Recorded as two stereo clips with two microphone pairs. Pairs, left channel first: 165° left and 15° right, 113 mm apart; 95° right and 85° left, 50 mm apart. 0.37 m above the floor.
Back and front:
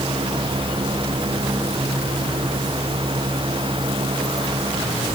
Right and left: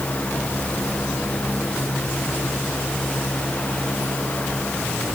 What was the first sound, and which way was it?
Only background noise.